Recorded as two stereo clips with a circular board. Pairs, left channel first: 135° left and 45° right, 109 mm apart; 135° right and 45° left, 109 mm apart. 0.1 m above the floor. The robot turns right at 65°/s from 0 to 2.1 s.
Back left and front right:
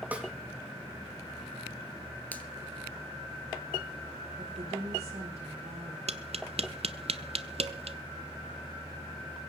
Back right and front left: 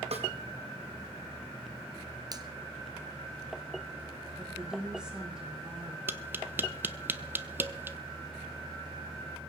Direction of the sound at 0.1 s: 30° left.